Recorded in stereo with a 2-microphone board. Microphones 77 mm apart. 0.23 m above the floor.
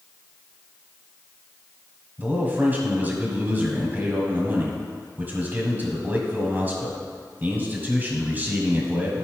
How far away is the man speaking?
About 1.5 m.